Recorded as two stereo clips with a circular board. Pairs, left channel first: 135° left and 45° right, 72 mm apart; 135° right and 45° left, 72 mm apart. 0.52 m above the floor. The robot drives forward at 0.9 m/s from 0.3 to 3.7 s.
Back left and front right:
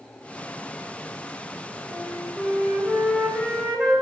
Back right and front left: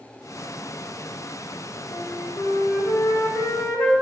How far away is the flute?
About 3 m.